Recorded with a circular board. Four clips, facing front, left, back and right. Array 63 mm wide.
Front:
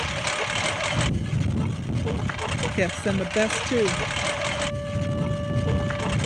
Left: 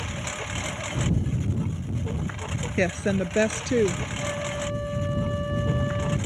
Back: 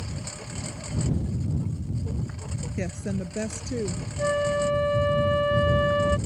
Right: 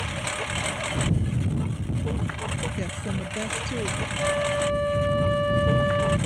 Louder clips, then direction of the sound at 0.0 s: Right 3 dB, front 11 dB; 15° right.